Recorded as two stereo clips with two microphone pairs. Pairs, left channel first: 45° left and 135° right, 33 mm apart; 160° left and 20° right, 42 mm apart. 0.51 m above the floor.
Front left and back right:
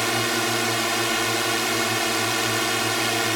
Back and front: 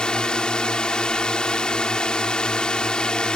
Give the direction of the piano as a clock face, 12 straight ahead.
No piano in this recording.